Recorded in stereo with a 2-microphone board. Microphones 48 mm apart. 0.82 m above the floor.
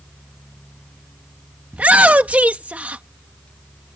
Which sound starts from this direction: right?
A shout, at 1.7 s.